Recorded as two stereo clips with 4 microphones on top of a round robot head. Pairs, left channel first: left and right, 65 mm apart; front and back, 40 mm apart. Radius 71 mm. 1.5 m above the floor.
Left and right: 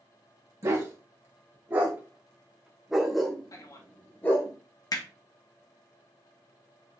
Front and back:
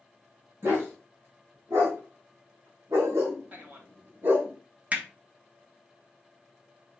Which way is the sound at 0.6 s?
135° right.